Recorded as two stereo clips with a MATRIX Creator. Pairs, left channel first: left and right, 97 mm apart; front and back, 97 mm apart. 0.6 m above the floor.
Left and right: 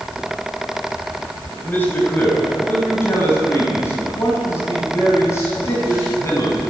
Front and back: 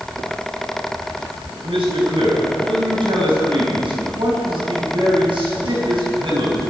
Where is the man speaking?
160° left, 3.5 m; by 6.6 s 150° left, 6 m.